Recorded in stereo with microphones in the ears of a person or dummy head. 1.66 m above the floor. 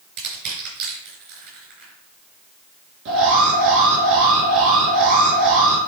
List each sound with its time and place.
0.2 s crushing: 65° right (ahead or behind), 3.5 m
3.0 s an alarm: 75° right (ahead or behind), 3 m